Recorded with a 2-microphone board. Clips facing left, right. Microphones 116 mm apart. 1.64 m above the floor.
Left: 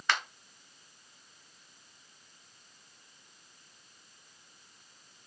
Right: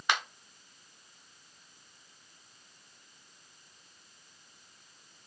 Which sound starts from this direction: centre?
A finger snap, at 0.1 s.